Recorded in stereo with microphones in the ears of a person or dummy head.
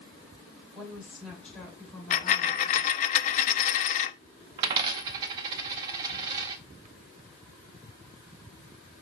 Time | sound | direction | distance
0.8 | a woman speaking | 10° right (ahead or behind) | 4 m
2.1 | a dropped coin | 45° left (ahead or behind) | 0.8 m
4.6 | a dropped coin | 15° right (ahead or behind) | 0.6 m